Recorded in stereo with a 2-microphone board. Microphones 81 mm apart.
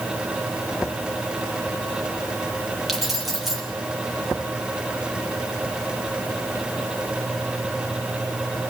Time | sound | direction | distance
2.9 | keys jangling | centre (ahead or behind) | 7 m